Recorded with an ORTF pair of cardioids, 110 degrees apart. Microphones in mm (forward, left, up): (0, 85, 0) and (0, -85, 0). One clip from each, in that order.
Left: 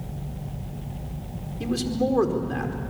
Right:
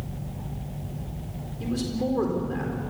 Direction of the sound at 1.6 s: 35° left.